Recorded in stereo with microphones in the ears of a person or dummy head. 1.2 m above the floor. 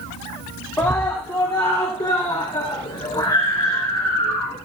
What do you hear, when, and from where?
0.8 s a scream: 10° left (ahead or behind), 2.5 m; by 4.6 s 20° left (ahead or behind), 5 m